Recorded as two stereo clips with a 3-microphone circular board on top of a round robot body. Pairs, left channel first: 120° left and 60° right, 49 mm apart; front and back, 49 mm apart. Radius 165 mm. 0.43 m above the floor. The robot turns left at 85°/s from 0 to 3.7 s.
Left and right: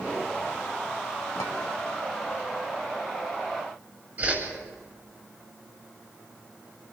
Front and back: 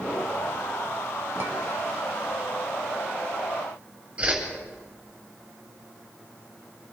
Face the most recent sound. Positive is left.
turn(degrees=-110)